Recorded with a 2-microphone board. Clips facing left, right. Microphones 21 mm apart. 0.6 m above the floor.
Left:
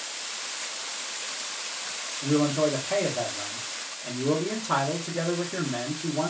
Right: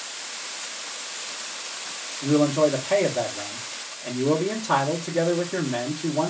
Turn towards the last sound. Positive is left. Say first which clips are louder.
# right 4 dB
turn(degrees=-25)  # may be behind; listen again after turning